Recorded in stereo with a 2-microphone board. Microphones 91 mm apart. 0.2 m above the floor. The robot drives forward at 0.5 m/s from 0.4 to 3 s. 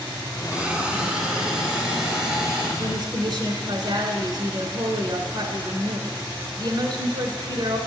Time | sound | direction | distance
0.5 | a hiss | 15° right (ahead or behind) | 0.7 m
2.8 | a woman speaking | 55° right (ahead or behind) | 1.8 m